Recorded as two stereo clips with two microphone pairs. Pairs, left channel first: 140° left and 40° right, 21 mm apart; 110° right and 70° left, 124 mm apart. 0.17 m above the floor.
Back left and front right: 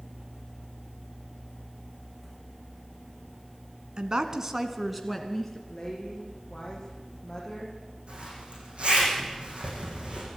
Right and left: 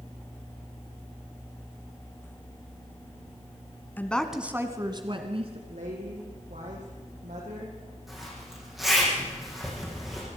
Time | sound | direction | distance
4.0 | a woman speaking | 40° right | 1.7 m
5.7 | a woman speaking | 80° left | 7.5 m
8.1 | a zipper | 20° right | 8 m